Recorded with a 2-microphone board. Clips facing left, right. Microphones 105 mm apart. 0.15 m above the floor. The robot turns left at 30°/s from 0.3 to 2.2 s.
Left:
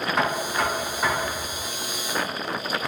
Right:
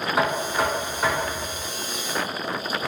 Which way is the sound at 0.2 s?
5° right (ahead or behind).